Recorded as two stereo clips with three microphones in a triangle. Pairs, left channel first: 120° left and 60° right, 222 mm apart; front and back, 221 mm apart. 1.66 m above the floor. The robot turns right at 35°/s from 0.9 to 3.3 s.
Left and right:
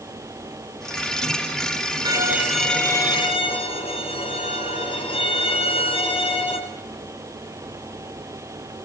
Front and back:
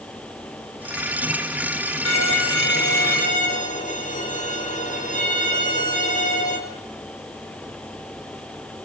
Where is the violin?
10° left, 5 m; by 6.6 s 55° left, 5 m.